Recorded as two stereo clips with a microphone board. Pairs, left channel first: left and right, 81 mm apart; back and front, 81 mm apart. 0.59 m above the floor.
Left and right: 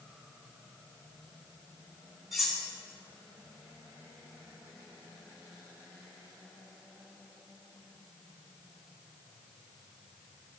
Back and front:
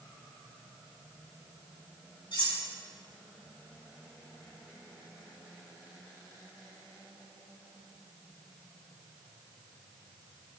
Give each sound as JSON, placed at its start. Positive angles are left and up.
{"t": 2.3, "sound": "cutlery clinking", "azimuth_deg": 180, "distance_m": 3.0}